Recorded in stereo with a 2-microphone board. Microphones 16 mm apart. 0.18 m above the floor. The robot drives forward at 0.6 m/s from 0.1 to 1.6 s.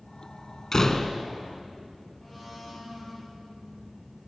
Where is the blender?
15° left (ahead or behind), 7 m.